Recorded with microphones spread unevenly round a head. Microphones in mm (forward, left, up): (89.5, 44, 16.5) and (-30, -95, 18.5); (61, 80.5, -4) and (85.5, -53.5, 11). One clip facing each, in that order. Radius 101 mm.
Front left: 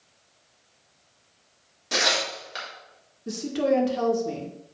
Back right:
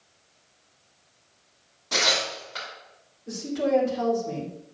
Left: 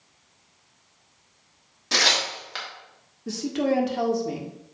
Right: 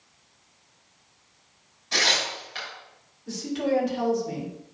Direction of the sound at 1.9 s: 115° left.